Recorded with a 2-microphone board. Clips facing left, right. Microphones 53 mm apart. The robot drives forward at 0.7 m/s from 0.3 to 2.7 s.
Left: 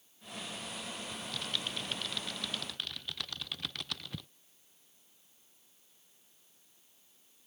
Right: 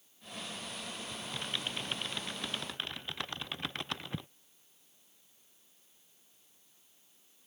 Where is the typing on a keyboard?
25° right (ahead or behind); by 4.3 s 30° right (ahead or behind).